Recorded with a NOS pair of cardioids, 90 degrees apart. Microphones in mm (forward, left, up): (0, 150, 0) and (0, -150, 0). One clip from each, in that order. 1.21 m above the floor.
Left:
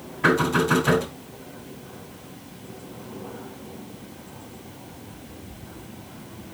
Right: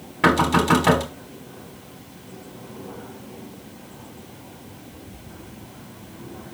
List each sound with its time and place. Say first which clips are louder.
0.2 s knocking: right 2 dB; 65° right, 3.5 m